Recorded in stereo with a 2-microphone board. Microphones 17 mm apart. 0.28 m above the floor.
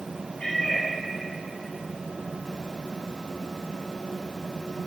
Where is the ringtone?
I don't hear a ringtone.